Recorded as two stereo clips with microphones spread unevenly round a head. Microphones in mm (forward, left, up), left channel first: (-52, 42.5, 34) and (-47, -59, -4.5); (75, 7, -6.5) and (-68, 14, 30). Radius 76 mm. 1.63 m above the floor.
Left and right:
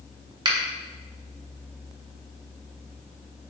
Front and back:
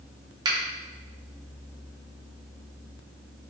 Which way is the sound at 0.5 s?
145° right.